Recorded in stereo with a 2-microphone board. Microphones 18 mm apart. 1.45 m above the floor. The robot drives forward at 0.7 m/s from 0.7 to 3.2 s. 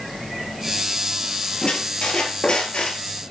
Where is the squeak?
50° left (ahead or behind), 4 m; by 3.0 s 60° left (ahead or behind), 3.5 m.